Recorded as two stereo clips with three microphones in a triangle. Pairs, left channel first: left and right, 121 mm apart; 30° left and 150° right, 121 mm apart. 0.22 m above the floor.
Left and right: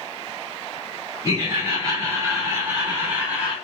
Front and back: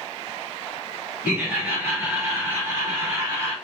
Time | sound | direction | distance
1.2 | laughter | 80° right | 1.9 m